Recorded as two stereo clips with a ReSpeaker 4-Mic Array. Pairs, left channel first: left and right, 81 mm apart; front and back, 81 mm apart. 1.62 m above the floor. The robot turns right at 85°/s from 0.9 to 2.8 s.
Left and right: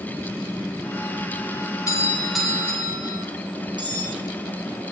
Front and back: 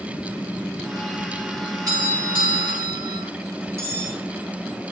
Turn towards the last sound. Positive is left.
turn(degrees=-120)